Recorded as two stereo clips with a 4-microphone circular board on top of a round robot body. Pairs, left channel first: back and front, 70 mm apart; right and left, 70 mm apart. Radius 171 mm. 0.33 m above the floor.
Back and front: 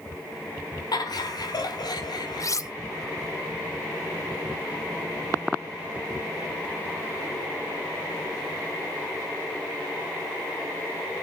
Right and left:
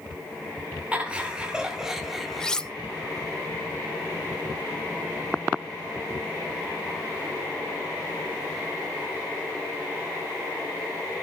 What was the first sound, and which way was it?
Laughter, 160° left.